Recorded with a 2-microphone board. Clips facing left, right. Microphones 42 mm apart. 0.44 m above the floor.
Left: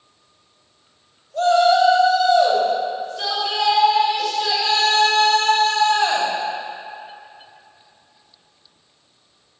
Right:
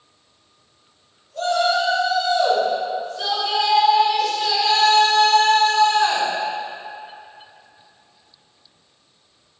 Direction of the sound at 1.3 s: 50° left (ahead or behind).